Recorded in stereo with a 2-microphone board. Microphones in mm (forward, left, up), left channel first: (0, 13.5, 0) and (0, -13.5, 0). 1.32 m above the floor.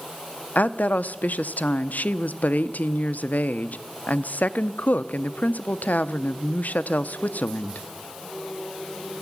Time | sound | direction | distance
0.6 | a woman speaking | 80° left | 0.5 m